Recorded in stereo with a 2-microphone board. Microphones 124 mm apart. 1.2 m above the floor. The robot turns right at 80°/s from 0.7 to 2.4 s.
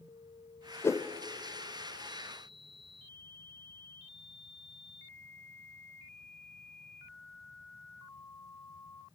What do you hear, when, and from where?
0.8 s a whoosh: 20° left (ahead or behind), 0.6 m; by 1.1 s 35° left (ahead or behind), 0.6 m